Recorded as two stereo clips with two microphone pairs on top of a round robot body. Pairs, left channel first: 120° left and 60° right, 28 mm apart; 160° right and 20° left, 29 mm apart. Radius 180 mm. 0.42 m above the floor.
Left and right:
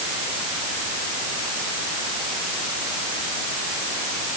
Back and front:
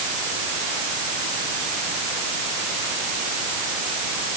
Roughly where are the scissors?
No scissors in this recording.